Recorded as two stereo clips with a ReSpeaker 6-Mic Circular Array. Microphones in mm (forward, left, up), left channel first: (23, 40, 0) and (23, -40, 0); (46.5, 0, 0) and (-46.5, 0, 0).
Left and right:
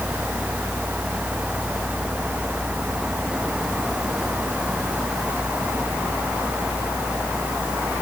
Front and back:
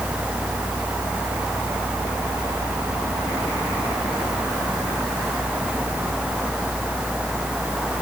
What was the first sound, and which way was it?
Only background noise.